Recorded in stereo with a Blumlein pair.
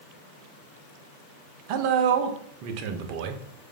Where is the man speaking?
45° right, 0.5 m.